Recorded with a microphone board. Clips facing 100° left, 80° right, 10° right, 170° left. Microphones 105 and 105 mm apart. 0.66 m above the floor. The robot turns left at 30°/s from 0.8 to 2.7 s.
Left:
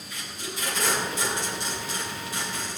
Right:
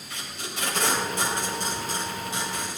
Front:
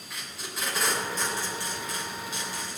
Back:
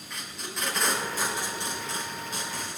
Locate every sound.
0.1 s tape being pulled: 100° right, 3.5 m; by 2.8 s 155° right, 3.5 m